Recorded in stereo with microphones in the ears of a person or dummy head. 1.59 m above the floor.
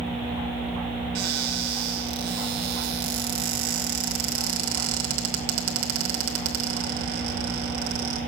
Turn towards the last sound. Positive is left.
turn(degrees=-55)  # may be behind; listen again after turning